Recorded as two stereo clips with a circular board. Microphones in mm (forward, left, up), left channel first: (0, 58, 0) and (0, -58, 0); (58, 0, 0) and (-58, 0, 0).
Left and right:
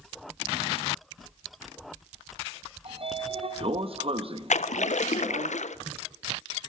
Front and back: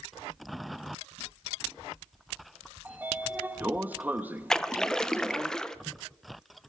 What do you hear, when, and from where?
2.9 s a sliding door: 105° right, 0.8 m
4.5 s a splash: 85° left, 0.6 m